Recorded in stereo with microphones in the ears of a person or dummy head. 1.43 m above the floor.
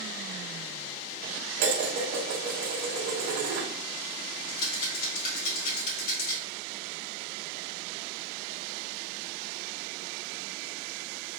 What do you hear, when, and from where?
1.6 s dishes clattering: 55° right (ahead or behind), 1.0 m
4.5 s a rattle: 55° left (ahead or behind), 1.6 m